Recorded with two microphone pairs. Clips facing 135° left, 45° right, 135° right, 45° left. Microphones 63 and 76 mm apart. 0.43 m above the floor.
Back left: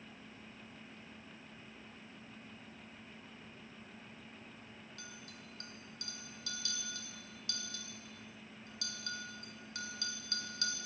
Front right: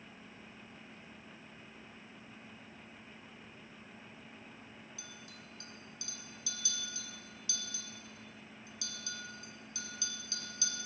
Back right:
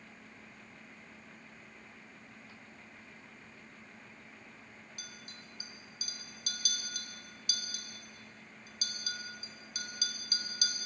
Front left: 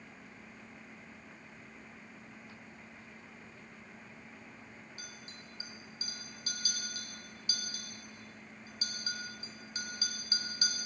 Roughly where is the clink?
Left.